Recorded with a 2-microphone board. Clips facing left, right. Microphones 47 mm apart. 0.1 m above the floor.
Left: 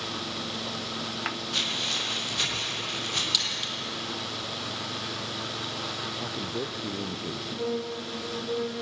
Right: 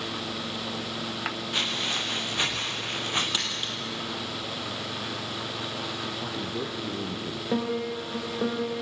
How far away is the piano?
About 5.5 m.